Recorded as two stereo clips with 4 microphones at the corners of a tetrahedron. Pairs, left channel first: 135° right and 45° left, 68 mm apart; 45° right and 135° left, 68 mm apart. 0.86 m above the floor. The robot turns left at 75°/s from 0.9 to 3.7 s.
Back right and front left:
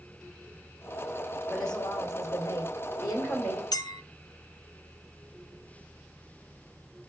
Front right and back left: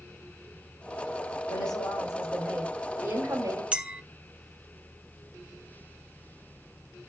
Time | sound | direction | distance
1.5 | a woman speaking | 40° right | 3.5 m
3.7 | a clink | 155° right | 0.8 m